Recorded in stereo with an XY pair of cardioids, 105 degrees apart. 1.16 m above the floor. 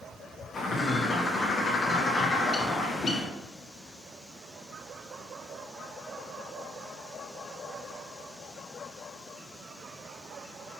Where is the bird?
45° left, 0.6 m.